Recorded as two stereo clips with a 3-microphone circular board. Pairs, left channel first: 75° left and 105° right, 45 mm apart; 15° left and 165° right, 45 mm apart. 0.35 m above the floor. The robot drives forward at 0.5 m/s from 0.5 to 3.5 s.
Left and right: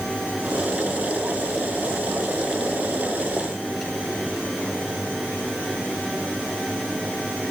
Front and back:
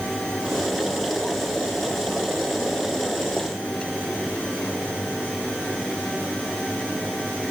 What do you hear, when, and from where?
Only background noise.